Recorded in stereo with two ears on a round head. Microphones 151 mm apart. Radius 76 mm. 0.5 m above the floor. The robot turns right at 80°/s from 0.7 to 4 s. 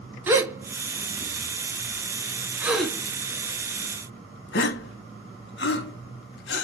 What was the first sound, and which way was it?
A gasp, 15° right (ahead or behind).